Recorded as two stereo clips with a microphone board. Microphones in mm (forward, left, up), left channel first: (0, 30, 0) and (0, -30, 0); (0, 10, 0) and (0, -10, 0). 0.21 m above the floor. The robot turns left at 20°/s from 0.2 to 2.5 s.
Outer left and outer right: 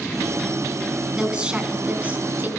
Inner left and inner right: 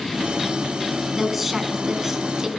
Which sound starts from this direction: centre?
A woman speaking, at 1.2 s.